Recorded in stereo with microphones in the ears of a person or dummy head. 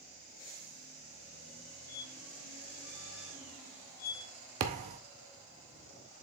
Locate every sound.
1.9 s a squeak: 55° left (ahead or behind), 2.5 m
4.6 s a thud: 40° right (ahead or behind), 0.7 m